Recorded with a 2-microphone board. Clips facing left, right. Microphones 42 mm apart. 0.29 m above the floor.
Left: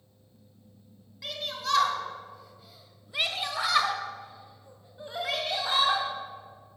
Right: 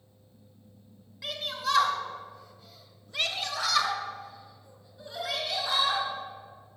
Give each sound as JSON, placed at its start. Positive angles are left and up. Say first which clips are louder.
{"t": 1.2, "sound": "a shout", "louder": "right 2 dB", "side_deg": -10, "distance_m": 2.0}